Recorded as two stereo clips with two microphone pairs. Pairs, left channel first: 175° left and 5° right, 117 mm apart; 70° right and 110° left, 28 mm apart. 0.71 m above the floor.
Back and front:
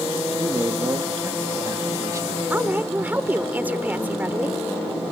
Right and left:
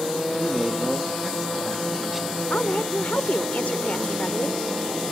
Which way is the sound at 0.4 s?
30° left.